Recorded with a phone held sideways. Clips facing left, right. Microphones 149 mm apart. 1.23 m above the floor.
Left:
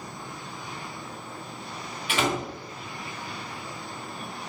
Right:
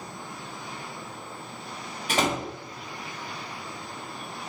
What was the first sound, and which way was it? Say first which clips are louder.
A door slam: right 1 dB; 40° right (ahead or behind).